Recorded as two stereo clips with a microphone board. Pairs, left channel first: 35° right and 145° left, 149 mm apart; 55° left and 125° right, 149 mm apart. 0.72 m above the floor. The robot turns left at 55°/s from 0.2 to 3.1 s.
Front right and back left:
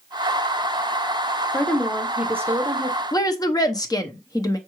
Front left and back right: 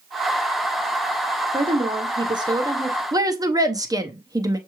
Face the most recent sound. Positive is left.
turn(degrees=-80)